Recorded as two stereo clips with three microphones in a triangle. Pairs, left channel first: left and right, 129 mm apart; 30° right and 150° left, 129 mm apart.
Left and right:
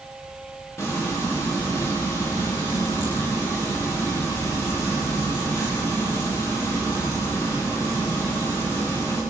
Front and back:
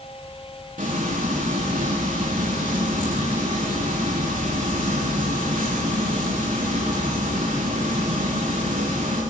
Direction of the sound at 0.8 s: 160° left.